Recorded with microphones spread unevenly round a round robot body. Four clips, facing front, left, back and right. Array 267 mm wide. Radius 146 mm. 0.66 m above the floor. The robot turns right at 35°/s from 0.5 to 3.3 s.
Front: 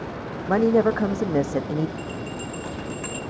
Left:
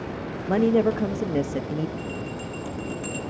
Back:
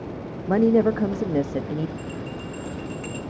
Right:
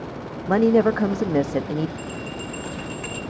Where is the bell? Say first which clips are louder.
Even, front 1 dB; 55° right, 9 m; by 3.2 s 15° right, 9 m.